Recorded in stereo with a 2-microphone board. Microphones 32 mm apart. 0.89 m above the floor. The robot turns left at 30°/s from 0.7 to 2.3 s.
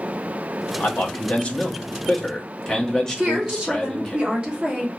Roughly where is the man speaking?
Ahead left.